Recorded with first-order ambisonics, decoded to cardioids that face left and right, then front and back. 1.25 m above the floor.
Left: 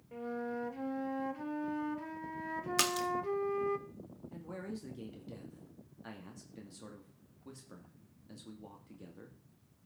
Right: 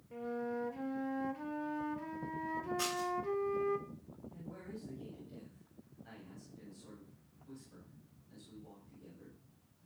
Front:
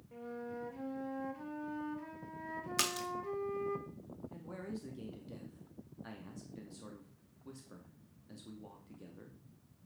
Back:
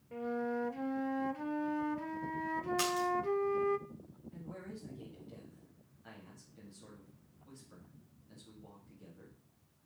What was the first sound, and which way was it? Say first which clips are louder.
A flute: even, back 8 dB; 165° left.